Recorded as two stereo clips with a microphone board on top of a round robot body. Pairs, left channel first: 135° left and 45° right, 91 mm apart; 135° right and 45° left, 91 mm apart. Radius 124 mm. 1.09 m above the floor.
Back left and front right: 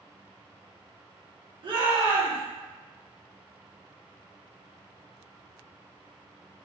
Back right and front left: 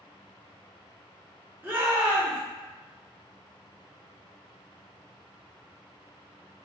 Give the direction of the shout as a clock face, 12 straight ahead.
1 o'clock.